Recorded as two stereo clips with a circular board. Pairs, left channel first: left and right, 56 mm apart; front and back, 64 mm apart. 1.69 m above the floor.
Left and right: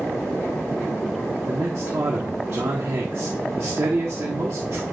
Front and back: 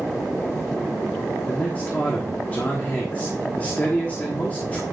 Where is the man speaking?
60° right, 1.3 m.